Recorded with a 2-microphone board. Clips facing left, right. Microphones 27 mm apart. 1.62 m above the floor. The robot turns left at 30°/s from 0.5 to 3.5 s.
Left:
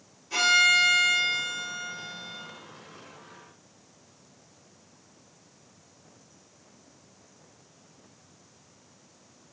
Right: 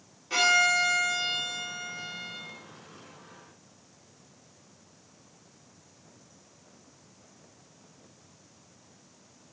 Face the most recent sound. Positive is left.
turn(degrees=135)